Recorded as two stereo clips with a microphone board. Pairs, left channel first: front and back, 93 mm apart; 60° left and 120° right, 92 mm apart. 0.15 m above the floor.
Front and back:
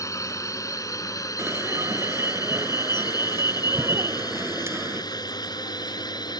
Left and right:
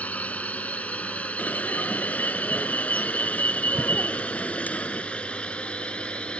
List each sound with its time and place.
0.0 s a drone: 5° right; by 6.4 s 15° right
1.4 s an alarm: 125° left